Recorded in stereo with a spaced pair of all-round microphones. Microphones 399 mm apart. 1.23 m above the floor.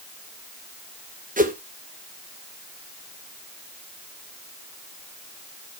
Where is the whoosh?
20° right (ahead or behind), 1.5 m.